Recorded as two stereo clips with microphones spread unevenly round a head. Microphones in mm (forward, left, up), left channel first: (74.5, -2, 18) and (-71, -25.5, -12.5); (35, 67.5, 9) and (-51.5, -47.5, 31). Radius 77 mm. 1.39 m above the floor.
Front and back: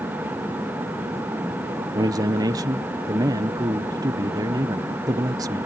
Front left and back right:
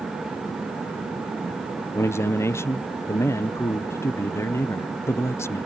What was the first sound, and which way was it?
A man speaking, 125° left.